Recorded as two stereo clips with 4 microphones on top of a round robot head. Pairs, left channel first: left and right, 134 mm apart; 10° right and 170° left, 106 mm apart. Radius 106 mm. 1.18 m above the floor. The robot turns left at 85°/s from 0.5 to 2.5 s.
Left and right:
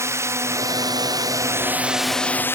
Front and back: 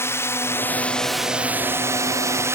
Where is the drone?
45° right; by 2.5 s 145° left.